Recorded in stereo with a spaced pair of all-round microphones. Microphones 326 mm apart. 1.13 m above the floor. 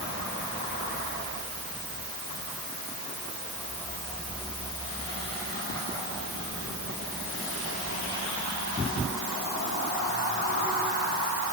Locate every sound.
Only background noise.